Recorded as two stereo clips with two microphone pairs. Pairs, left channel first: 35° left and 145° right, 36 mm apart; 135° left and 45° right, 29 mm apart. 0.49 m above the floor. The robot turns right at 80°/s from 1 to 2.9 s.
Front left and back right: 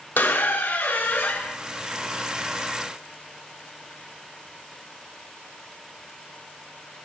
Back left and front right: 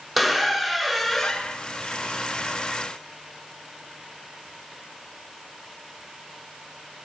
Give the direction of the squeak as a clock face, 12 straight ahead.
11 o'clock.